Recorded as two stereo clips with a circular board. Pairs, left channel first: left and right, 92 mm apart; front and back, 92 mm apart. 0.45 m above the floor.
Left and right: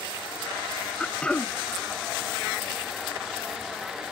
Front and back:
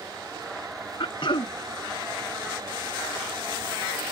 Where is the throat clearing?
15° left.